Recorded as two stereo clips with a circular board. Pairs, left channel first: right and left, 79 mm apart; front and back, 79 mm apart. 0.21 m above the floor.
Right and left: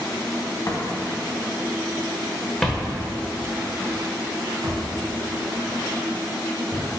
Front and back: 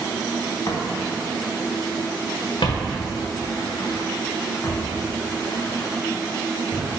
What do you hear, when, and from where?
0.7 s footsteps: 45° right, 1.7 m; by 6.8 s 75° left, 2 m